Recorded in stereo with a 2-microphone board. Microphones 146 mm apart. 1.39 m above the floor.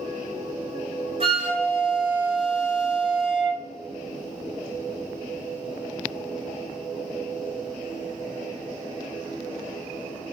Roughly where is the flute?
Right.